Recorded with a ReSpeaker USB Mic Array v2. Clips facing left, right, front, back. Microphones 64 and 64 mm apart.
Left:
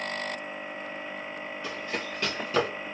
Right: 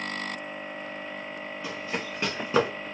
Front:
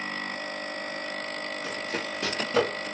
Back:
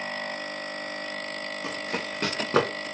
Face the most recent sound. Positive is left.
turn(degrees=-155)